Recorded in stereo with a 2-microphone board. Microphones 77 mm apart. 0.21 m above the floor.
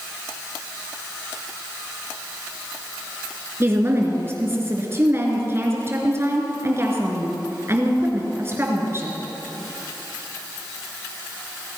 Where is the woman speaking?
35° right (ahead or behind), 3 m.